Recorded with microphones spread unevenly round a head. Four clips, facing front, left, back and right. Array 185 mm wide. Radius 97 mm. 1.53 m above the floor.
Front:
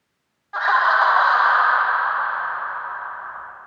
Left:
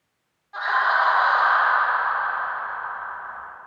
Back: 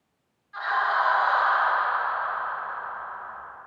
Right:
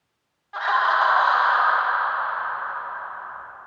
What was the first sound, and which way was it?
Laughter, 15° right.